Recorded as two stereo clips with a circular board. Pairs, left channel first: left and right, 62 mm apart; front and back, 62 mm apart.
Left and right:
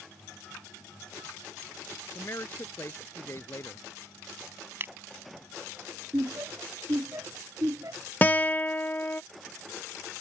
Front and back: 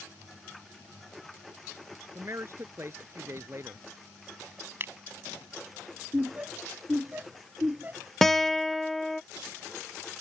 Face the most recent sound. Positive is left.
turn(degrees=80)